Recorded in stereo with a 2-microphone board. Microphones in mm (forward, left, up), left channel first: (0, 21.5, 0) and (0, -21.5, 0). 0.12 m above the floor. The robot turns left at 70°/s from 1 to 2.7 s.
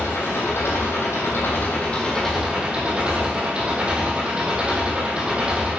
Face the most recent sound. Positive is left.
turn(degrees=-20)